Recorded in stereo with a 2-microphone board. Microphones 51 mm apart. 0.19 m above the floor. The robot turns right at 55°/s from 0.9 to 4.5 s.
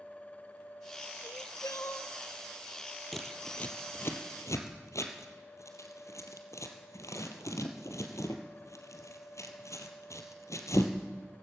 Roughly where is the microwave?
I don't hear a microwave.